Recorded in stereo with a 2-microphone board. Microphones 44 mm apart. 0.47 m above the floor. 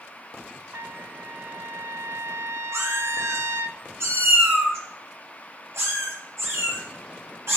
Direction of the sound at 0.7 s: 70° right (ahead or behind).